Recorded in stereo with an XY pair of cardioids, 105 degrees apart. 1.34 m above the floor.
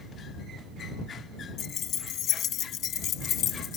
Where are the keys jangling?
70° left.